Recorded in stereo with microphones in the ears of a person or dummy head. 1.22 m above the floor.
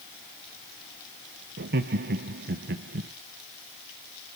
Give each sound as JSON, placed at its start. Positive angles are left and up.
{"t": 1.6, "sound": "laughter", "side_deg": -50, "distance_m": 1.0}